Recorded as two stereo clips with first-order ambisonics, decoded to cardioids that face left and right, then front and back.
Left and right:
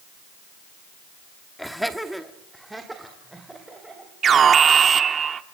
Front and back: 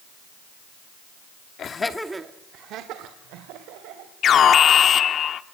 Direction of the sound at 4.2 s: 40° right.